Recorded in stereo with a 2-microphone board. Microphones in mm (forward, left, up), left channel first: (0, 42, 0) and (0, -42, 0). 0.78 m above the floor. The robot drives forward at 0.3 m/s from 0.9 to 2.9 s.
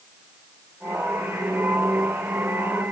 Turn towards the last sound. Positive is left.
No sound to turn to.